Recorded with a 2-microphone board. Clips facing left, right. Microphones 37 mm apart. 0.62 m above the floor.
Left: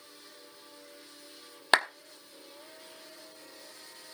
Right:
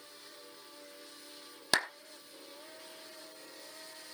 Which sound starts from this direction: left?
A clap, at 1.7 s.